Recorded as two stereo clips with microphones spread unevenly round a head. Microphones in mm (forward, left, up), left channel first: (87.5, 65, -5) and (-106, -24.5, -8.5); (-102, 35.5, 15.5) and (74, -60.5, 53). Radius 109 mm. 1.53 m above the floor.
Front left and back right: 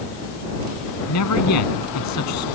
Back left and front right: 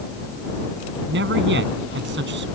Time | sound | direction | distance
1.1 | a man speaking | 10° left | ?